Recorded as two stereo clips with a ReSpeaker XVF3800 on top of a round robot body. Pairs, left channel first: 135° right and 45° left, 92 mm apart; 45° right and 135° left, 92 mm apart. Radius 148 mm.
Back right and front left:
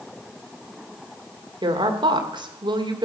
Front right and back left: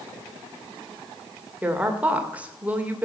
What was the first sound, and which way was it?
A woman speaking, 65° left.